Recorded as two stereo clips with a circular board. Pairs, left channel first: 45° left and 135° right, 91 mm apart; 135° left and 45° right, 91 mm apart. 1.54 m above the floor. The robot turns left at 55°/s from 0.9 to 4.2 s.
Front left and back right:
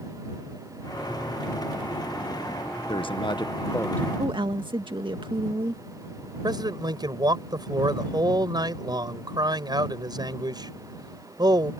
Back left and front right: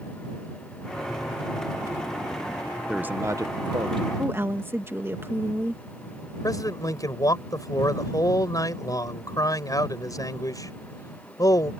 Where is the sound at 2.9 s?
35° left; by 4.1 s 30° right.